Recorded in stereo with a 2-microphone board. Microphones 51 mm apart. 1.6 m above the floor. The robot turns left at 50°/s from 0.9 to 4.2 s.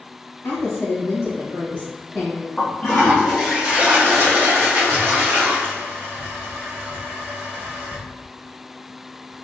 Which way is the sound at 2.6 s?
30° left.